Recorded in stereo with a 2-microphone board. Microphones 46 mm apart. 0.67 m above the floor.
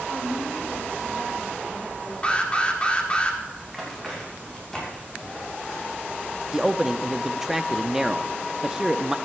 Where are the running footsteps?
5° left (ahead or behind), 7 m; by 6.3 s 25° left (ahead or behind), 7 m.